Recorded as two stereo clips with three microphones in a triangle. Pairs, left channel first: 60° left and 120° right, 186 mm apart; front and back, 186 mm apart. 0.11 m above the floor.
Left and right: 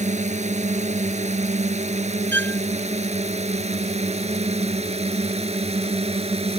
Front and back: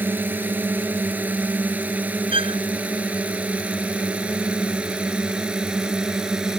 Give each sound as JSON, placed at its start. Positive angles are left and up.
{"t": 0.0, "sound": "a drone", "azimuth_deg": -105}
{"t": 2.3, "sound": "a violin", "azimuth_deg": -120}